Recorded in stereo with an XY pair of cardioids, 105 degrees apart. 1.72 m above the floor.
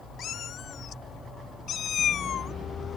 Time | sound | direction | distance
0.2 | a cat meowing | 65° left | ?